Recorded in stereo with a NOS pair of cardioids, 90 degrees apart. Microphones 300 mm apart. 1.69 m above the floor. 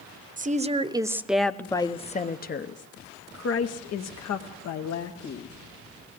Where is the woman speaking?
25° right, 1.1 m; by 5.5 s 70° left, 2 m.